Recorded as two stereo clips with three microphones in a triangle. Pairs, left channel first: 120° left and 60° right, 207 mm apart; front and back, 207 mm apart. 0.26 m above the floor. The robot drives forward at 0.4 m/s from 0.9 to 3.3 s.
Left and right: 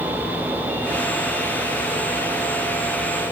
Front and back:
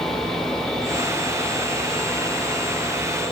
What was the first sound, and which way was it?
Only background noise.